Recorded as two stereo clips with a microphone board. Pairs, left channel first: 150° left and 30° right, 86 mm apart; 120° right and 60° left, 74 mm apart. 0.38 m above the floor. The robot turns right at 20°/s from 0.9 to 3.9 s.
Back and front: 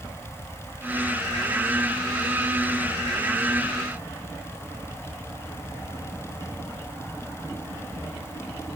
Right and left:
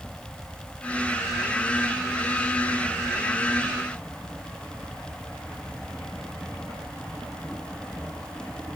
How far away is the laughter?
I don't hear laughter.